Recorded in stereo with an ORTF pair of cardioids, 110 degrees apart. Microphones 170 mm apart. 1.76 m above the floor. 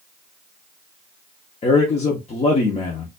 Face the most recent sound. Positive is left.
turn(degrees=40)